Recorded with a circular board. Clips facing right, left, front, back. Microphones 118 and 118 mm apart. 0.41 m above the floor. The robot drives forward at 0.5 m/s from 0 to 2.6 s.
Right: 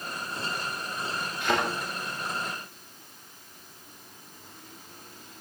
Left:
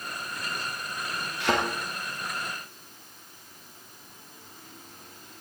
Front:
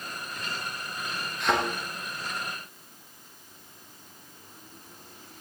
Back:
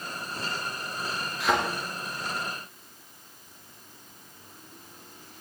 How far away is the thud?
About 4.5 m.